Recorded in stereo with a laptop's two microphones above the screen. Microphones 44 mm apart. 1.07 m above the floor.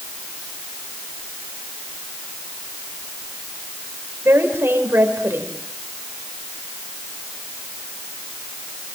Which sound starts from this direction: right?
A woman speaking, at 4.2 s.